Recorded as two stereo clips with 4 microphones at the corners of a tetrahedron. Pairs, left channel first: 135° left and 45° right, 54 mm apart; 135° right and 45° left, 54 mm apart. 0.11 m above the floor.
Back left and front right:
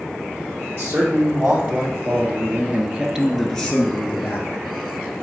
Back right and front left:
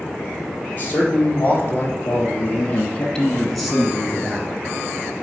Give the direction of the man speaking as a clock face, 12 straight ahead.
3 o'clock.